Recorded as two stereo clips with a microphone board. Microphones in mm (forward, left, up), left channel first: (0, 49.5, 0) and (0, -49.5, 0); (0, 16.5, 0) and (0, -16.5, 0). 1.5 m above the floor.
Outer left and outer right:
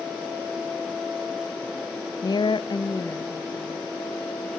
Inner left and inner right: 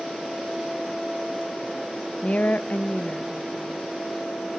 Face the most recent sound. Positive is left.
turn(degrees=20)  # may be behind; listen again after turning